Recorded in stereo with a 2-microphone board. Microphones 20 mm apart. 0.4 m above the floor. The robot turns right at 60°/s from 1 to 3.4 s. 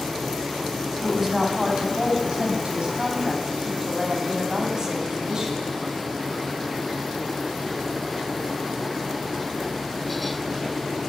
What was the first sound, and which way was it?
A woman speaking, 175° right.